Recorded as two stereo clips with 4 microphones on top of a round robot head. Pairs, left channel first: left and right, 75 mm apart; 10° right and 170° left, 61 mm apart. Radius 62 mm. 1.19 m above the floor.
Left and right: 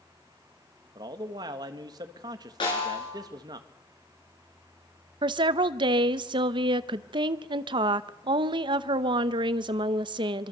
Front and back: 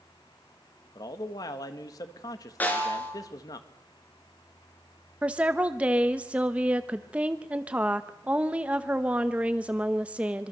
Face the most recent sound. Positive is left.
turn(degrees=-115)